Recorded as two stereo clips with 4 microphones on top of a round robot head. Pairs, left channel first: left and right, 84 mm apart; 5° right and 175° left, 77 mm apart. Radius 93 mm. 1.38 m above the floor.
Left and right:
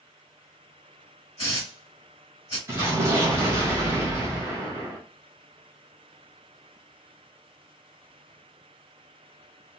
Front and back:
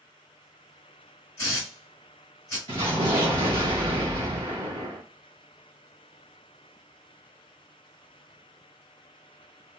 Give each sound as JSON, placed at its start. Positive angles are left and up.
{"t": 1.4, "sound": "a hiss", "azimuth_deg": 30, "distance_m": 0.9}
{"t": 2.7, "sound": "an explosion", "azimuth_deg": -140, "distance_m": 0.7}